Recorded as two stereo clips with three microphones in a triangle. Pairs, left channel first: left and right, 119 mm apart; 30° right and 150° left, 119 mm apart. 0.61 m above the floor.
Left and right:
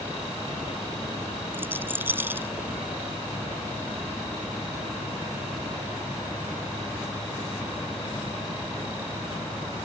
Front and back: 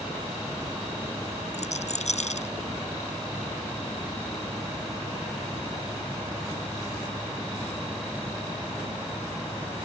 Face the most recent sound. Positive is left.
turn(degrees=-15)